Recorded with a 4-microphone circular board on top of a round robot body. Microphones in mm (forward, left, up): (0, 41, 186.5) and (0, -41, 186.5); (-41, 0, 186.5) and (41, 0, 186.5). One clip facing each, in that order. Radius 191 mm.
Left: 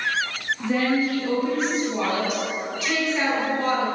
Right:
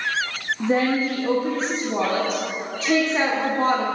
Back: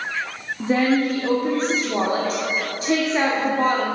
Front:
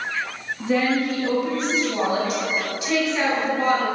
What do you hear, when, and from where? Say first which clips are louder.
0.6 s a woman speaking: right 2 dB, back 2 dB; 135° right, 1.1 m